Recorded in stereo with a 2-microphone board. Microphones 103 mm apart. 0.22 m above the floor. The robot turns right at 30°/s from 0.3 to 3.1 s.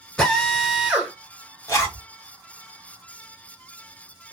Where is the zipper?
30° left (ahead or behind), 1.4 m; by 2.0 s 25° left (ahead or behind), 1.4 m.